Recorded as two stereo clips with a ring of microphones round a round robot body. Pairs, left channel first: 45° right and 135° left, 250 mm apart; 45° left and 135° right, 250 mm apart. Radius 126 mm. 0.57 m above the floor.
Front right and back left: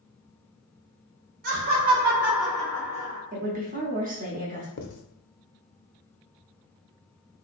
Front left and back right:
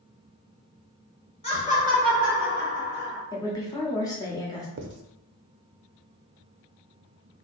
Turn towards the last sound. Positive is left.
turn(degrees=-90)